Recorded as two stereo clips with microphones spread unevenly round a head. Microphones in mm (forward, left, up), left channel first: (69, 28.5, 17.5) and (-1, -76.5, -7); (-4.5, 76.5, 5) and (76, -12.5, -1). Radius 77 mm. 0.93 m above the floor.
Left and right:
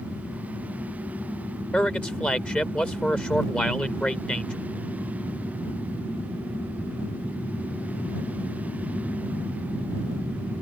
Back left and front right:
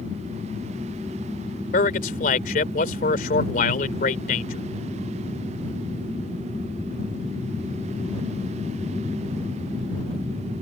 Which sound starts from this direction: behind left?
A man speaking, at 1.7 s.